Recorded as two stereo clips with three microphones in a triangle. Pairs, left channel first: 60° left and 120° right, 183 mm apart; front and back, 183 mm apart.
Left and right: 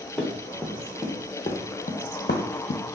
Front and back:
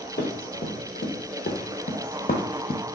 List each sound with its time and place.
0.2 s running footsteps: 25° right, 1.3 m; by 2.8 s 60° left, 0.7 m